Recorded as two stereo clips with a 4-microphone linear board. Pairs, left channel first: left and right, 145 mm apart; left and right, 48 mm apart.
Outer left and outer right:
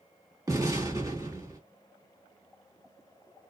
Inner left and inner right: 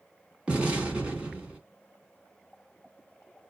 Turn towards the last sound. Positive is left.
turn(degrees=-25)  # may be behind; listen again after turning